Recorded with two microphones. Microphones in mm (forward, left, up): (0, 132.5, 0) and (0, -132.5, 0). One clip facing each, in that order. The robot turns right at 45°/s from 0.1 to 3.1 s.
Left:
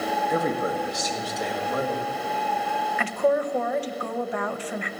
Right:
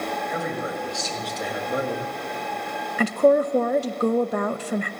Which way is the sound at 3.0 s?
40° right (ahead or behind).